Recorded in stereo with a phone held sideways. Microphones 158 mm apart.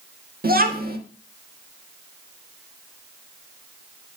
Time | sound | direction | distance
0.4 | a child speaking | 70° right (ahead or behind) | 1.5 m